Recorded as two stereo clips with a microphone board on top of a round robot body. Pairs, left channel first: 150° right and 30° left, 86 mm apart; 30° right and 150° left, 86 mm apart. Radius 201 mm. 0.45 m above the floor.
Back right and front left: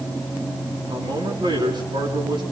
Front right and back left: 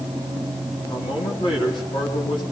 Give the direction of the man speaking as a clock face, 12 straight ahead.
12 o'clock.